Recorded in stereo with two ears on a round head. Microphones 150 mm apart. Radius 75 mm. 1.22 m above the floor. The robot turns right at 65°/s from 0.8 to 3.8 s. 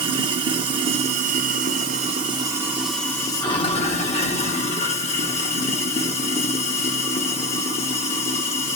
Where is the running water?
135° right, 1.0 m; by 8.8 s 60° left, 1.0 m.